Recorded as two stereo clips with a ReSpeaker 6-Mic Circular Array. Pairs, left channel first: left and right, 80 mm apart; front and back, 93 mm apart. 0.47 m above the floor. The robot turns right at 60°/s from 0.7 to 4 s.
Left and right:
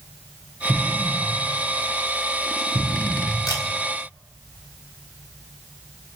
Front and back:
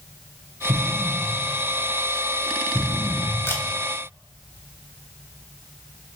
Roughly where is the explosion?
Behind.